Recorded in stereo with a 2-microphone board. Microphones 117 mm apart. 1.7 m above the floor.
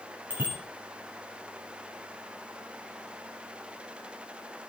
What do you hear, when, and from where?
0.3 s a bicycle bell: 15° right (ahead or behind), 8.5 m